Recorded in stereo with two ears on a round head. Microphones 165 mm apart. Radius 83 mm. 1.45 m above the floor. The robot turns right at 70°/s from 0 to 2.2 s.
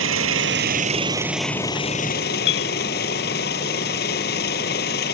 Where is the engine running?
100° right; by 5.2 s 55° left.